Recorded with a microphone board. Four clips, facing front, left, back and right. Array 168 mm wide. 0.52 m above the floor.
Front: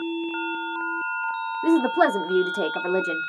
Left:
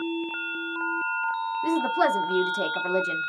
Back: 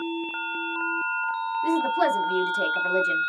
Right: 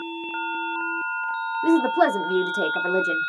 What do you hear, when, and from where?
1.6 s a woman speaking: 35° right, 0.9 m